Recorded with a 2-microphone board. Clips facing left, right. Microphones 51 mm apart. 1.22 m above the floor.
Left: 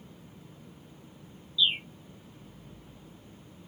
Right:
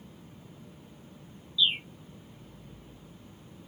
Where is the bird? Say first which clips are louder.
Even; centre (ahead or behind).